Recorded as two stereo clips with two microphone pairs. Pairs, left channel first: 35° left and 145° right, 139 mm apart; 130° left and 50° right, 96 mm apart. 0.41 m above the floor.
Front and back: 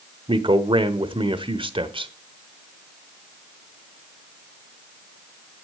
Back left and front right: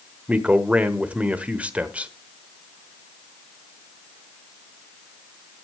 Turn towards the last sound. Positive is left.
turn(degrees=-120)